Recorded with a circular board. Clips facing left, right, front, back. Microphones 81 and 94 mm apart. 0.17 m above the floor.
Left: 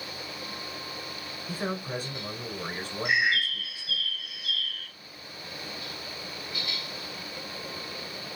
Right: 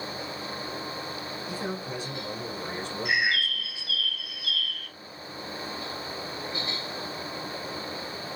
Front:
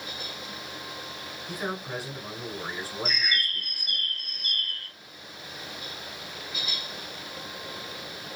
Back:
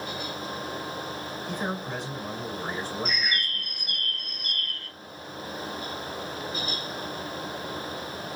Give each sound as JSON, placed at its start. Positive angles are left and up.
{"t": 1.5, "sound": "a man speaking", "azimuth_deg": 80, "distance_m": 1.2}
{"t": 3.0, "sound": "a bird", "azimuth_deg": 5, "distance_m": 2.0}